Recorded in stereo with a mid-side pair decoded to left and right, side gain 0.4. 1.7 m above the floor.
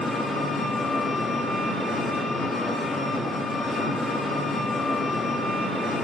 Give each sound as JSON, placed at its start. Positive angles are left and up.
{"t": 0.0, "sound": "an engine running", "azimuth_deg": 55, "distance_m": 1.4}